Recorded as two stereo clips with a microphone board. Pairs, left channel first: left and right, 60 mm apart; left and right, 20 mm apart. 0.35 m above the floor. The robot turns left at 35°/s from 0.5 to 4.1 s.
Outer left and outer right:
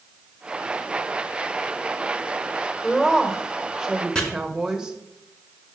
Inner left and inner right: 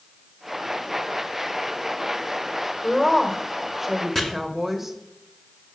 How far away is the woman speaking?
About 1.4 m.